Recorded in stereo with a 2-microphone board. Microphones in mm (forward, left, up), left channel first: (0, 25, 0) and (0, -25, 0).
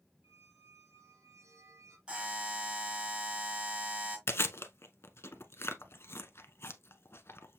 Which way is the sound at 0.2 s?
70° right (ahead or behind).